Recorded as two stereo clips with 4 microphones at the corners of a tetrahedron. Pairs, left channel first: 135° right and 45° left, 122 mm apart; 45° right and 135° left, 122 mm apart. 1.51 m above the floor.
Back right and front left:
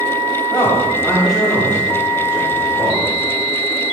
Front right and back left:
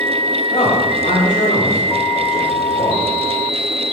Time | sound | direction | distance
0.5 | a man speaking | 65° right | 3.5 m